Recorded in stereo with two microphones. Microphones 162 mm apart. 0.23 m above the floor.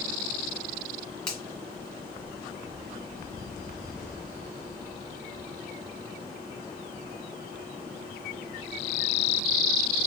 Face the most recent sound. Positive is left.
turn(degrees=5)  # may be behind; listen again after turning